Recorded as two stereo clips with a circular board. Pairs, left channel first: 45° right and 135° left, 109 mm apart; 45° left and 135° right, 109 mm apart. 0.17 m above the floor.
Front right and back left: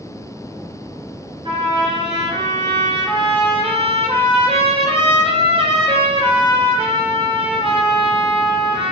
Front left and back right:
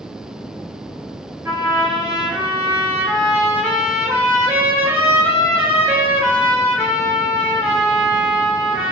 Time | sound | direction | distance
1.4 | a trumpet | 160° left | 2.5 m